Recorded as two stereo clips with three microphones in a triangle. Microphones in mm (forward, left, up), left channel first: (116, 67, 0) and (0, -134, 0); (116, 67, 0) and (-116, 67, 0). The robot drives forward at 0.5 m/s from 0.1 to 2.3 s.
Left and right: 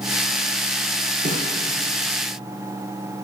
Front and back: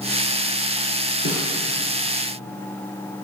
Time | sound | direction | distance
1.2 | a snare drum | 175° right | 3.5 m